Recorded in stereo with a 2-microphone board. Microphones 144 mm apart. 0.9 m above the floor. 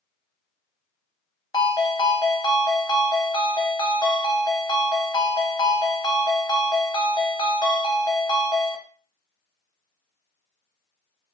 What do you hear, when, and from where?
1.5 s a ringtone: 30° left (ahead or behind), 0.5 m